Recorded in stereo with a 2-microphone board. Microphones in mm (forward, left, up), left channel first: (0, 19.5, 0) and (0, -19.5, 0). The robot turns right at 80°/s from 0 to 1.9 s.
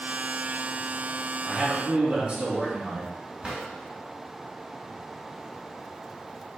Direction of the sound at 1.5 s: 170° right.